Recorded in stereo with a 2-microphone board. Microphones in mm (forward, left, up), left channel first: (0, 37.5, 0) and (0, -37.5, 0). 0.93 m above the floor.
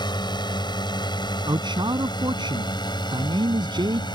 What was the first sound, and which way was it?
A drone, 75° left (ahead or behind).